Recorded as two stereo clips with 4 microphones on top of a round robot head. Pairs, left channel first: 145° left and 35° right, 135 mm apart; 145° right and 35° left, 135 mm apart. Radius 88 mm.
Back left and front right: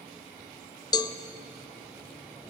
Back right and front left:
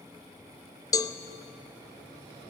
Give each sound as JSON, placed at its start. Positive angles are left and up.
{"t": 0.9, "sound": "a cowbell", "azimuth_deg": 175, "distance_m": 0.6}